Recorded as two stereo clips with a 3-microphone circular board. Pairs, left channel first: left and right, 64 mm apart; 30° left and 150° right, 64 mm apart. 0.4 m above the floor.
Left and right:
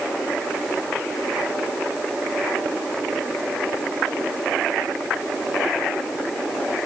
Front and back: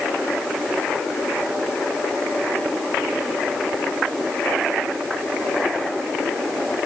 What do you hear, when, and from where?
Only background noise.